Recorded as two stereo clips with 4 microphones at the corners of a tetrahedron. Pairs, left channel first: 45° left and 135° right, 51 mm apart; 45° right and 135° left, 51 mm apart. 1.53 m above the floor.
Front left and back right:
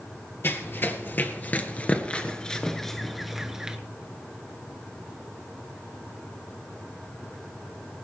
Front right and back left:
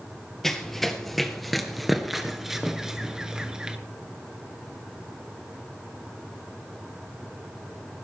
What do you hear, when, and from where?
0.4 s running footsteps: 35° left, 2 m; by 3.8 s 175° left, 1.5 m